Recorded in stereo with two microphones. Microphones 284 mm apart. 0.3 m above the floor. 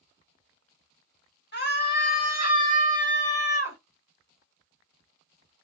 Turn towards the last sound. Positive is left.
turn(degrees=20)  # may be behind; listen again after turning